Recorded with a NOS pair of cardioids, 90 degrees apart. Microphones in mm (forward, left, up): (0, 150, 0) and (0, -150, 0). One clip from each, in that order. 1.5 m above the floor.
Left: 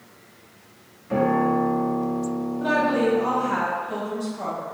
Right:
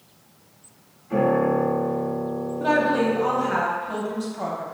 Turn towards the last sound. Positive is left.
turn(degrees=-20)